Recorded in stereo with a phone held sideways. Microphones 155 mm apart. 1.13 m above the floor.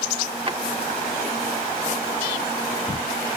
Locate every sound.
0.5 s a drawer: 35° right (ahead or behind)